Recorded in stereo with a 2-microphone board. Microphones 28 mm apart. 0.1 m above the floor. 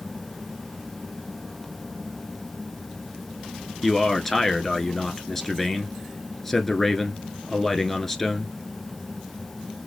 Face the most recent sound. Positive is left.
turn(degrees=10)  # may be behind; listen again after turning